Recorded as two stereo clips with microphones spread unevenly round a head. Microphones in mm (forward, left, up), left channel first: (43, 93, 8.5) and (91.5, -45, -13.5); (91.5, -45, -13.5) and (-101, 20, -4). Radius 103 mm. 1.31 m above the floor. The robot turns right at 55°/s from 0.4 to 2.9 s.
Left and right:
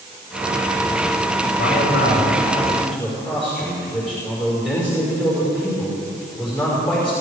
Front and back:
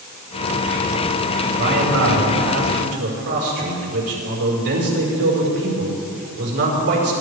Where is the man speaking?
125° left, 5 m; by 7.1 s 165° right, 5 m.